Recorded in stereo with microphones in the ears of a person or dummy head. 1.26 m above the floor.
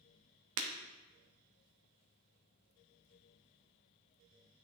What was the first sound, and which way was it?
Breaking glass, 70° right (ahead or behind).